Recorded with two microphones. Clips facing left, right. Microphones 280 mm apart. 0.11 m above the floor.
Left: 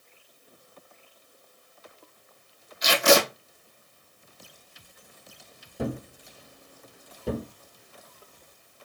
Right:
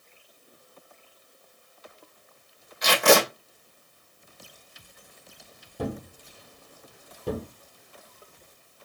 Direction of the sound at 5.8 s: Centre (ahead or behind).